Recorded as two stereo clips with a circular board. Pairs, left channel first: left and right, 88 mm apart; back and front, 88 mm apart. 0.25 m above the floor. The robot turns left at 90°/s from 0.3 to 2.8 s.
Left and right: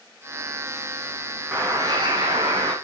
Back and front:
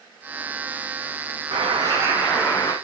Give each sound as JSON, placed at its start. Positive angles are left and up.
{"t": 1.5, "sound": "a bird", "azimuth_deg": -15, "distance_m": 3.5}